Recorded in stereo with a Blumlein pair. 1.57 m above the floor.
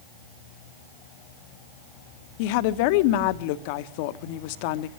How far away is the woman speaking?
About 1.4 m.